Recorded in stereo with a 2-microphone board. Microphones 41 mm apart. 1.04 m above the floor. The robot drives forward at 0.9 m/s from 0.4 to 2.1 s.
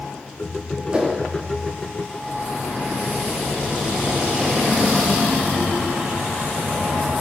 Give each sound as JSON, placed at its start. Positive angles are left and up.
{"t": 0.9, "sound": "a whoosh", "side_deg": -20, "distance_m": 0.6}